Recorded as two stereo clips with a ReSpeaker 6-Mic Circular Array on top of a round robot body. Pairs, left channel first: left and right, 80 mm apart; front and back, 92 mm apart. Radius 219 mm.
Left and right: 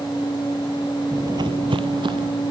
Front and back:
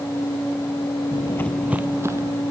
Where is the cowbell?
No cowbell in this recording.